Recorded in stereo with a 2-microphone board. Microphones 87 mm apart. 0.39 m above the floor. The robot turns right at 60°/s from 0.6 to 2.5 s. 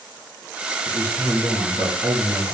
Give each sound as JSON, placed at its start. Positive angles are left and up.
{"t": 0.8, "sound": "a man speaking", "azimuth_deg": 40, "distance_m": 3.5}